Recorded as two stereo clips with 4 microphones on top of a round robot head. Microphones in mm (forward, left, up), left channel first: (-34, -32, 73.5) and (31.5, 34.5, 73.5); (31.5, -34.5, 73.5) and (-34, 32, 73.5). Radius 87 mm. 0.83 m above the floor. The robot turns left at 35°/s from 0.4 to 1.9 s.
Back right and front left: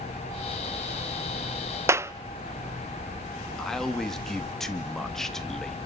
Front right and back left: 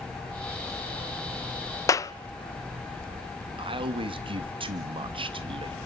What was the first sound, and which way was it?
A clap, 5° right.